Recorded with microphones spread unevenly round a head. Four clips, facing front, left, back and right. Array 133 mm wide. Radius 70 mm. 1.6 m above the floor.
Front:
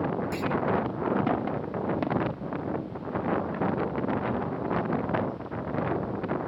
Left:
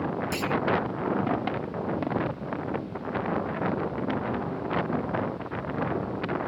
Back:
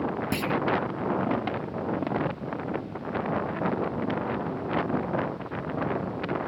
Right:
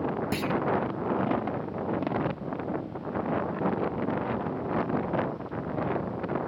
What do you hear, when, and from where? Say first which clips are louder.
0.3 s a clunk: even, back 1 dB; 145° right